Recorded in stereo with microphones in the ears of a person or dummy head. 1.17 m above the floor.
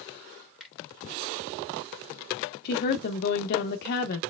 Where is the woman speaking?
55° left (ahead or behind), 0.7 m.